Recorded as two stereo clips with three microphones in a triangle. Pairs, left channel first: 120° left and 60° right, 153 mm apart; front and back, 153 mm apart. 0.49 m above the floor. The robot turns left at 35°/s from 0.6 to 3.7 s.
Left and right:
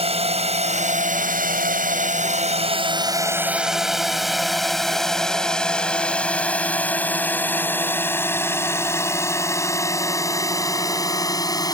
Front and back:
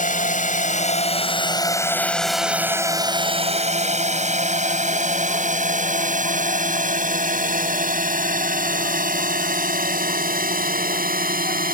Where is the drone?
15° right; by 11.8 s 175° right.